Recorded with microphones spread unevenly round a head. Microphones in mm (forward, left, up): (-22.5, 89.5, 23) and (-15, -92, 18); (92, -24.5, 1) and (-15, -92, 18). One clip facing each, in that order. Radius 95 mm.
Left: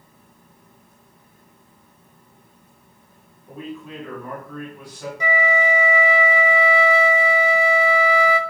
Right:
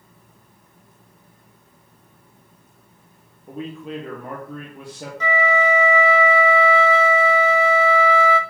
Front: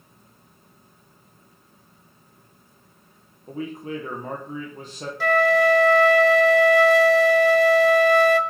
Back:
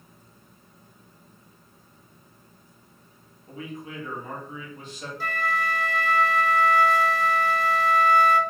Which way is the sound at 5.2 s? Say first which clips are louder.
Right 1 dB, front 11 dB; 15° left.